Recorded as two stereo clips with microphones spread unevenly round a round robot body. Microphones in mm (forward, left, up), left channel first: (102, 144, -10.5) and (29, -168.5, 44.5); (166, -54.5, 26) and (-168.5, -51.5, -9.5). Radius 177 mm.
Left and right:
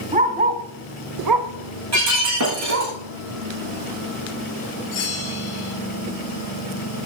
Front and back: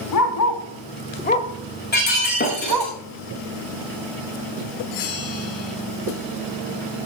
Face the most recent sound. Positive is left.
turn(degrees=35)